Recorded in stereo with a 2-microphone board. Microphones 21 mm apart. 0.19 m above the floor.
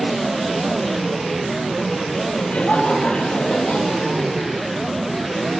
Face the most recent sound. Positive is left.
turn(degrees=80)